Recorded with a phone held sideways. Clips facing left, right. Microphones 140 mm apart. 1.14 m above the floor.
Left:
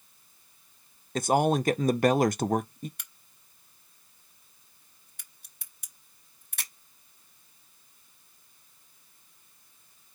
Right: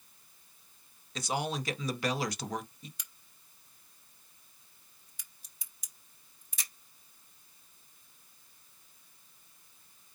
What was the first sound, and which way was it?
A man speaking, 50° left (ahead or behind).